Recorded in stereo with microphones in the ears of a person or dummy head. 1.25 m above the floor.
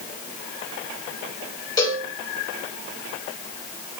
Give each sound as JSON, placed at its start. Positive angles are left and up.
{"t": 1.8, "sound": "a cowbell", "side_deg": 20, "distance_m": 3.5}